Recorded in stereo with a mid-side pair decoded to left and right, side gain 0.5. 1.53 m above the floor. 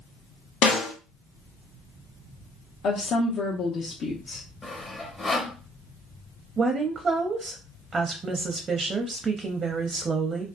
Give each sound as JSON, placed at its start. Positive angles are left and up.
{"t": 0.6, "sound": "a snare drum", "azimuth_deg": 70, "distance_m": 0.9}
{"t": 2.8, "sound": "a woman speaking", "azimuth_deg": 55, "distance_m": 0.8}
{"t": 4.6, "sound": "sawing", "azimuth_deg": 20, "distance_m": 0.9}
{"t": 6.6, "sound": "a woman speaking", "azimuth_deg": -40, "distance_m": 0.6}